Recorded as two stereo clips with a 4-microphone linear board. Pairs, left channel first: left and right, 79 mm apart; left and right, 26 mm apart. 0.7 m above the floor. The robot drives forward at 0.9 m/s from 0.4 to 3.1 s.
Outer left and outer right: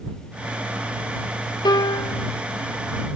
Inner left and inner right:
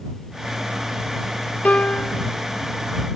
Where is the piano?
65° left (ahead or behind), 0.6 m; by 2.3 s 45° left (ahead or behind), 0.7 m.